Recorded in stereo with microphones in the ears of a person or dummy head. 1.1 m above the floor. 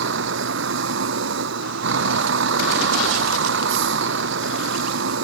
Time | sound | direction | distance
0.0 | a vehicle | 70° right (ahead or behind) | ?